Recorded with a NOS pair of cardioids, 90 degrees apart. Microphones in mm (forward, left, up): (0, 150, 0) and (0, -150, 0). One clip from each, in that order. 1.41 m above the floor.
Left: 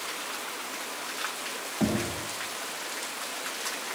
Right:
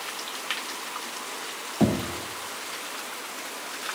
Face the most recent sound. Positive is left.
turn(degrees=-35)